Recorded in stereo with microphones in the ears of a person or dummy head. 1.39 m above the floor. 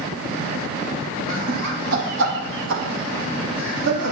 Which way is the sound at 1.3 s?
50° right (ahead or behind).